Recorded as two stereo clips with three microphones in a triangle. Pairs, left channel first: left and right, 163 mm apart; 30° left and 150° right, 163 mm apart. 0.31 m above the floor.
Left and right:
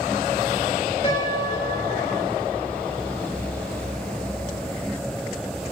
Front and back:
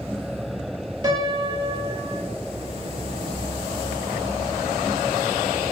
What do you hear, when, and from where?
1.0 s a piano: 150° left, 4.5 m